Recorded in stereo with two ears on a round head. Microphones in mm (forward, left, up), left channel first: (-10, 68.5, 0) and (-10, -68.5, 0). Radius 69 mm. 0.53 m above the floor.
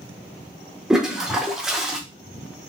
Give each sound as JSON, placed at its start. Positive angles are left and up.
{"t": 0.9, "sound": "a toilet flushing", "side_deg": -5, "distance_m": 0.6}